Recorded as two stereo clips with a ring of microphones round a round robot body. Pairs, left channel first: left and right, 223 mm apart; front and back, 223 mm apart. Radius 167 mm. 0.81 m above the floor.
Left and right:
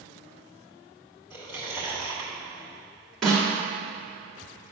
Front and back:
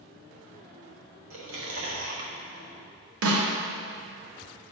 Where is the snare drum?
Straight behind, 1.4 m.